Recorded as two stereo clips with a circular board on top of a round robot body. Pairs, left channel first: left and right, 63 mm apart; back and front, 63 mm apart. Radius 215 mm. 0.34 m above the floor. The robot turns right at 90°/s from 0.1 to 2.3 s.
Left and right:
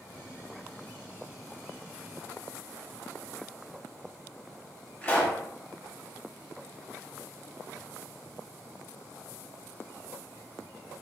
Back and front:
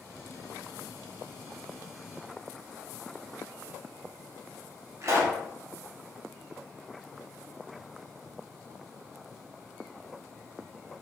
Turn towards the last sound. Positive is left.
turn(degrees=35)